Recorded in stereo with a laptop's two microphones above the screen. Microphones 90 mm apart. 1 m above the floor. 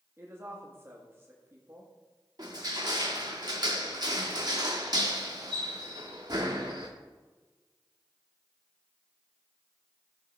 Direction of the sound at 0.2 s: 25° right (ahead or behind).